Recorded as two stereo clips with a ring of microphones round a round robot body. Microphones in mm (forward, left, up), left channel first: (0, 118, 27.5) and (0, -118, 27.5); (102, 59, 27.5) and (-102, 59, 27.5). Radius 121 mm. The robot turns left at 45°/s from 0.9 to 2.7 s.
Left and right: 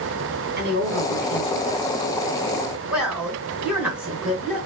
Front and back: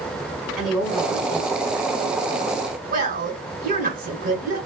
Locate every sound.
0.6 s a woman speaking: 90° right, 1.7 m; by 4.7 s 175° right, 1.7 m